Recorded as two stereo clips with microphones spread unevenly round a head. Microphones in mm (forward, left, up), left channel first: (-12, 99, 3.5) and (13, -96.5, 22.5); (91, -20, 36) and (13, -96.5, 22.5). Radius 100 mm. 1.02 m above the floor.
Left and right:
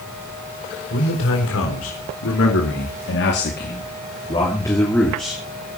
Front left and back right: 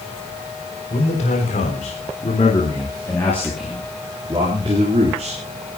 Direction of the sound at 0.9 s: 75° left.